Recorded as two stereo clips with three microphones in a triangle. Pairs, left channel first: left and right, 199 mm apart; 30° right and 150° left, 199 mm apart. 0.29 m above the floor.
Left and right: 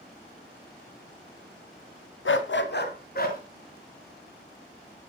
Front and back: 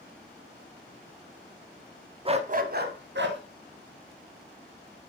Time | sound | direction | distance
2.2 | a dog barking | 90° left | 0.5 m